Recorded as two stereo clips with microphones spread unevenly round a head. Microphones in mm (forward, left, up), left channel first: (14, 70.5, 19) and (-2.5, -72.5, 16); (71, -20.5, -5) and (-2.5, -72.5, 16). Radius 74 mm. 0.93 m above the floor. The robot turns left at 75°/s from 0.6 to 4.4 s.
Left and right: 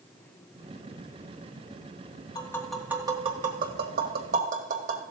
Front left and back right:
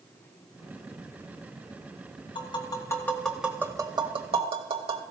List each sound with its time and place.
2.4 s tapping: 20° left, 1.8 m; by 5.0 s 130° right, 1.8 m